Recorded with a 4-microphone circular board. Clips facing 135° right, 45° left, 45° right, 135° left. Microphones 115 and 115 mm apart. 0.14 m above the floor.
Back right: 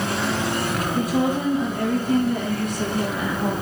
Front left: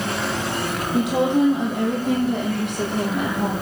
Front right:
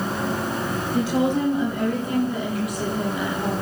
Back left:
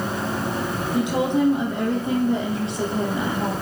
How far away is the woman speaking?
About 5 m.